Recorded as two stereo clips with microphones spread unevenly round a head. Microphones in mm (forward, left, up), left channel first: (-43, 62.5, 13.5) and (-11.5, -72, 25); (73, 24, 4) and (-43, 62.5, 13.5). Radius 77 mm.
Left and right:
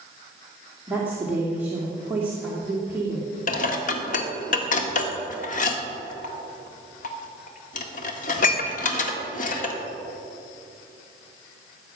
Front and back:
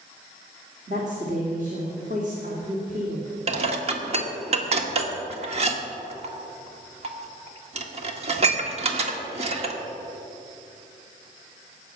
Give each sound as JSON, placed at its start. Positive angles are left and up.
{"t": 0.9, "sound": "a woman speaking", "azimuth_deg": -155, "distance_m": 2.5}
{"t": 3.5, "sound": "dishes clattering", "azimuth_deg": 130, "distance_m": 1.7}